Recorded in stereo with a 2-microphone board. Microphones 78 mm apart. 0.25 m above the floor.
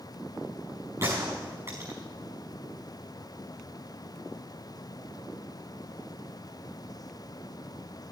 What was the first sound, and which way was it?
A gunshot, 40° right (ahead or behind).